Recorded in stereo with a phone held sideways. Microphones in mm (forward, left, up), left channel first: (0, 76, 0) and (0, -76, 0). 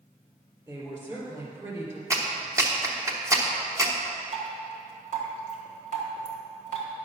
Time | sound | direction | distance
0.7 | a woman speaking | 25° right (ahead or behind) | 3.5 m
2.1 | a clap | 20° right (ahead or behind) | 1.0 m
4.3 | dripping | 60° right (ahead or behind) | 1.9 m